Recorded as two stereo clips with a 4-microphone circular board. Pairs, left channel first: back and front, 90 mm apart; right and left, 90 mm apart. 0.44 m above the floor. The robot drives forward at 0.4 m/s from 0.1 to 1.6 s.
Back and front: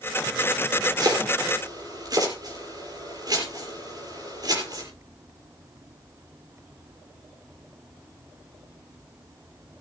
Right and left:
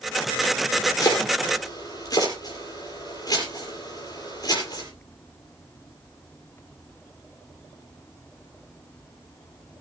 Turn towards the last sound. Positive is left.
turn(degrees=-45)